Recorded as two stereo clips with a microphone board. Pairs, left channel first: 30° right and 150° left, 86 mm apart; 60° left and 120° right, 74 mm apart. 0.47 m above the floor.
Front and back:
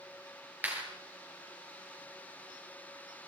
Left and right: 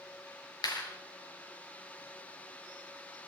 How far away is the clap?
About 7.5 m.